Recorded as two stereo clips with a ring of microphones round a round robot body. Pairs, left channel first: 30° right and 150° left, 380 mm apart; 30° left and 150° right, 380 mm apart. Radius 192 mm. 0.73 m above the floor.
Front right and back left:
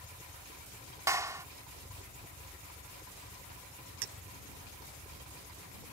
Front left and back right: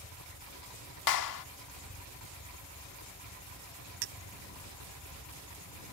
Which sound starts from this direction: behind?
A clink, at 4.0 s.